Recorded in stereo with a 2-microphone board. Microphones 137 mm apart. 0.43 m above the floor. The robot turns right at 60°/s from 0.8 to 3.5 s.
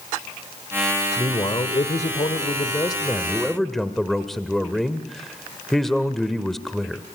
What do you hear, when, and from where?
1.2 s a man speaking: 35° left, 1.2 m; by 7.0 s 175° left, 1.2 m